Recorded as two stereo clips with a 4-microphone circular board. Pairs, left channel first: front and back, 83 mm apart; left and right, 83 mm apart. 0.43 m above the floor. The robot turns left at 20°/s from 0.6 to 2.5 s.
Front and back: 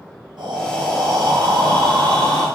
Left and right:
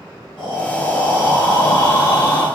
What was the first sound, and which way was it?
Breathing, 170° left.